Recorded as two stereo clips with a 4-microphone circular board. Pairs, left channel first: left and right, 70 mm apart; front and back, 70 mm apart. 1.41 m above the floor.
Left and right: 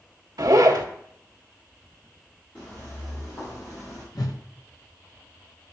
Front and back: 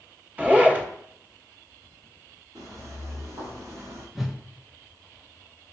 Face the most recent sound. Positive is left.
turn(degrees=90)